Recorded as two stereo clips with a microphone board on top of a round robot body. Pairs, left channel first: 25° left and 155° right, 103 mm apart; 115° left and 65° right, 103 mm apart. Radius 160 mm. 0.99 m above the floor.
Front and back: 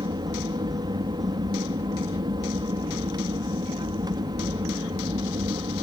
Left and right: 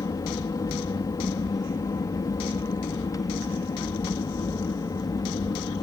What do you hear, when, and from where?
0.0 s an aircraft: 160° left